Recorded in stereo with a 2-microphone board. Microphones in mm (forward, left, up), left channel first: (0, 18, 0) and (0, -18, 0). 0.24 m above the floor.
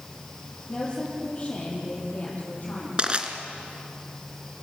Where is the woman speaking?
25° left (ahead or behind), 7.5 m; by 3.0 s 35° left (ahead or behind), 9.5 m.